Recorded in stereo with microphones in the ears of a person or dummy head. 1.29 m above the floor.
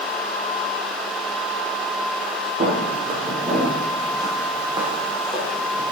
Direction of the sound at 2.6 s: 35° right (ahead or behind).